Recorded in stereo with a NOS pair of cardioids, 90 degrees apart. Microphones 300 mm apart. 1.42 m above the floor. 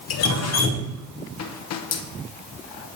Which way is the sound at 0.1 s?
60° left.